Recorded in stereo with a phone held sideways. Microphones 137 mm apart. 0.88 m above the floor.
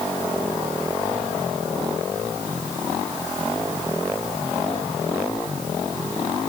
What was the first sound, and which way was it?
Only background noise.